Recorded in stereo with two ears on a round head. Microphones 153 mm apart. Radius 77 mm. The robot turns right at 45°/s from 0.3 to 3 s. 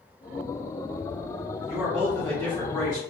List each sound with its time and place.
1.7 s a man speaking: 25° right, 0.9 m; by 3.0 s 35° left, 0.9 m